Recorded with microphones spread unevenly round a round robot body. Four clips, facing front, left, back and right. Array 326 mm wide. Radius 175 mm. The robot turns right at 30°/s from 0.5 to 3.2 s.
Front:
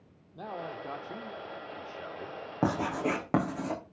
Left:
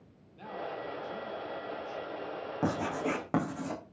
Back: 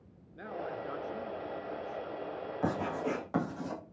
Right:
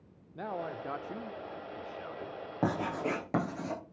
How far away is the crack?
I don't hear a crack.